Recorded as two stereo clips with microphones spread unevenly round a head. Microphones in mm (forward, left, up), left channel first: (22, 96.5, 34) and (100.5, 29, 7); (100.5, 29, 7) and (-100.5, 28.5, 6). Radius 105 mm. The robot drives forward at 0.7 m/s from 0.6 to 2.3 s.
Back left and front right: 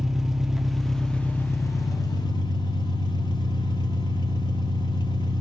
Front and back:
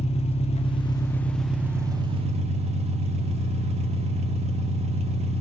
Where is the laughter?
I don't hear laughter.